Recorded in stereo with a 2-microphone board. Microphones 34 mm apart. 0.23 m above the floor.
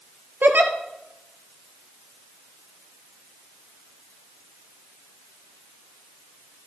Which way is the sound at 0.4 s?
70° right (ahead or behind).